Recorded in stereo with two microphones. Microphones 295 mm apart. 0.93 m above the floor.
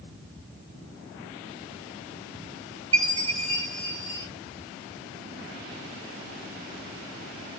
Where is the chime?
55° right (ahead or behind), 2.5 m.